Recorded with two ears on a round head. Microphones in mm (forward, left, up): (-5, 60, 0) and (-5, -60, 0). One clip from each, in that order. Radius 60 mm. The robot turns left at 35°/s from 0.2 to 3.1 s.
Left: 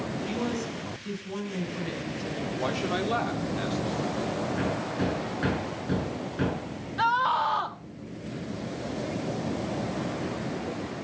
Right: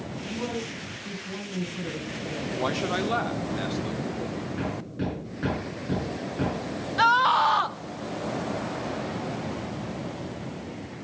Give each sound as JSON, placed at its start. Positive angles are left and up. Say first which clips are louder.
{"t": 0.2, "sound": "a man speaking", "louder": "right 2 dB", "azimuth_deg": 95, "distance_m": 5.0}
{"t": 2.5, "sound": "a man speaking", "louder": "right 2 dB", "side_deg": -30, "distance_m": 2.0}
{"t": 4.6, "sound": "hammering", "louder": "left 3 dB", "side_deg": 20, "distance_m": 8.5}
{"t": 7.0, "sound": "a scream", "louder": "right 4 dB", "side_deg": -45, "distance_m": 1.0}